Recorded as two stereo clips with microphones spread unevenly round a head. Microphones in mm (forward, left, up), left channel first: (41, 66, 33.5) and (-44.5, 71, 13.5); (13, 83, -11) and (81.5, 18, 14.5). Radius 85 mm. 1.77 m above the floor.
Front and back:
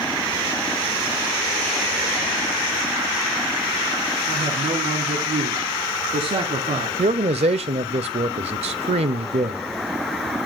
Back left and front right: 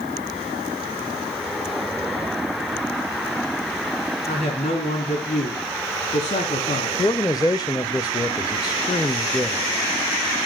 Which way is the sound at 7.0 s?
150° right.